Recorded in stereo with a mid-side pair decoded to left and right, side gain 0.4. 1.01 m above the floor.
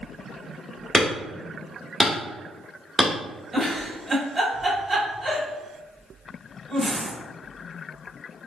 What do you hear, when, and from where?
0.9 s hammering: 20° right, 1.4 m
3.5 s a giggle: 25° right, 1.7 m